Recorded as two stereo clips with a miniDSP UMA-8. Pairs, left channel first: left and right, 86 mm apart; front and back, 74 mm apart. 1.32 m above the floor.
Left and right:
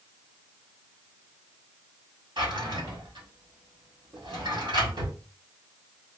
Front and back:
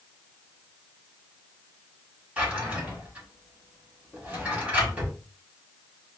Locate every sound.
2.4 s a drawer: 105° right, 1.6 m